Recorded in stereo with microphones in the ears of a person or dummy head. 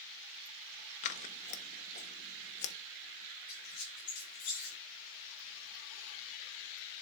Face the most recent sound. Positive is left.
turn(degrees=50)  # may be behind; listen again after turning